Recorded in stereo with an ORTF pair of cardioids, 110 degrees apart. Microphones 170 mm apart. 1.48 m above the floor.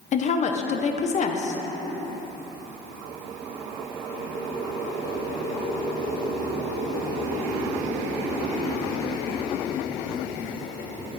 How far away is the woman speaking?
About 0.9 m.